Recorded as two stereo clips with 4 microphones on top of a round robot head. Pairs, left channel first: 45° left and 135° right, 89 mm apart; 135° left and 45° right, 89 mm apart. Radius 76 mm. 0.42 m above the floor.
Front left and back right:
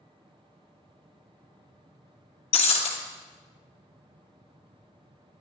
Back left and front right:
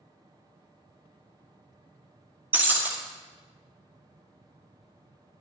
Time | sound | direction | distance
2.5 | breaking glass | 30° left | 1.9 m